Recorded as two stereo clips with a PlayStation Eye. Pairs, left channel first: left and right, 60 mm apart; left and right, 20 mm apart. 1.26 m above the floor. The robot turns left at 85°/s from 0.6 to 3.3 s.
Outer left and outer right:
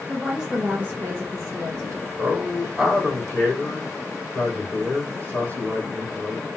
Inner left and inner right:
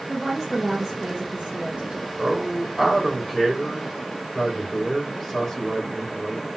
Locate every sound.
0.1 s a woman speaking: 15° right, 1.3 m; by 2.1 s 140° right, 1.3 m
2.2 s a man speaking: 115° right, 2.5 m; by 6.5 s 150° left, 2.5 m